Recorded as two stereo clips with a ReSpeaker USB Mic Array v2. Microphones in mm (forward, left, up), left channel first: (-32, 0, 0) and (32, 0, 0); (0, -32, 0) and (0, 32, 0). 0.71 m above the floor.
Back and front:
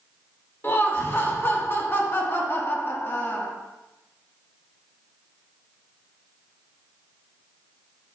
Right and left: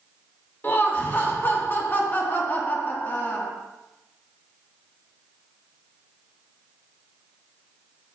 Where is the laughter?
140° right, 1.3 m.